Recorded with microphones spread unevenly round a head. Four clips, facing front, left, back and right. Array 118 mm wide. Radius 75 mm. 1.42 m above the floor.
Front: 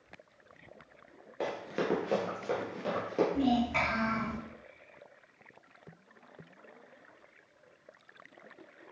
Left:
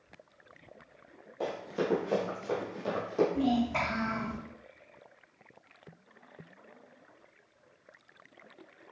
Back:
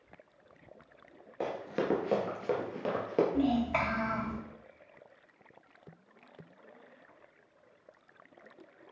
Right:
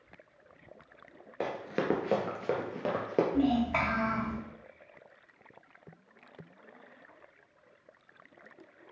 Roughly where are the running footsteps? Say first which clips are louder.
Even, even; right.